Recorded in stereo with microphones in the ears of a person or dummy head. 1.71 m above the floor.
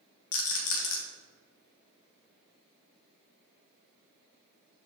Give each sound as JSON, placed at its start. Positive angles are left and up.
{"t": 0.3, "sound": "a rattle", "side_deg": 70, "distance_m": 1.8}